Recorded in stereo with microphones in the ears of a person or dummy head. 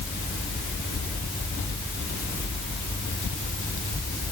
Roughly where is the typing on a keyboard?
I don't hear typing on a keyboard.